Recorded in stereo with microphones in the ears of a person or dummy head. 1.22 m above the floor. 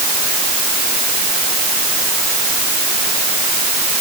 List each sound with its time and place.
Only background noise.